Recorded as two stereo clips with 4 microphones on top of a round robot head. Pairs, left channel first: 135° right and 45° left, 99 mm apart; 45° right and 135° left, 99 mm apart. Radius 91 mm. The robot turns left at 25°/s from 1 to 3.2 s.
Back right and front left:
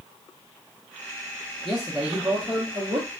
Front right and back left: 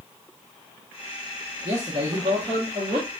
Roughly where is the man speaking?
Behind left.